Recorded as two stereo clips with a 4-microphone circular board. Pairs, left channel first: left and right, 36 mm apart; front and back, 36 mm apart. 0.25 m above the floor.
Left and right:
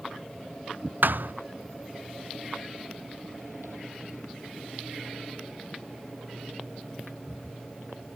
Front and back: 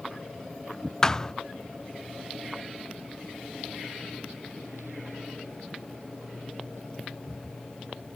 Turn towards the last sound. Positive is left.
turn(degrees=-70)